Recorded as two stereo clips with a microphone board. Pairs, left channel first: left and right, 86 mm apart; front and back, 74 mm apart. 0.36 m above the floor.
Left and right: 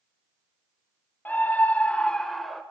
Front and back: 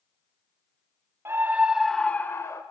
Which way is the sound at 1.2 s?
150° left.